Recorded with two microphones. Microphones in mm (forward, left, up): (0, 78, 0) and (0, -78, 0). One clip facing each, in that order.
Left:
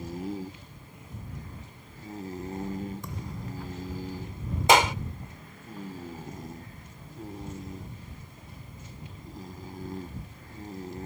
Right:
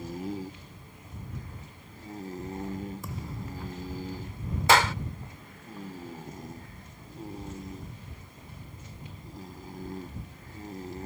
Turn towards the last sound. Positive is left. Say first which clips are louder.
# left 2 dB
turn(degrees=20)  # may be behind; listen again after turning